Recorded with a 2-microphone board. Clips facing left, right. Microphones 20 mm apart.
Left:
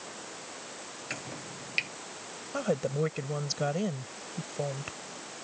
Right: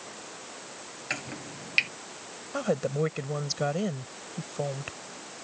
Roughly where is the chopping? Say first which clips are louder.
Right 5 dB; right.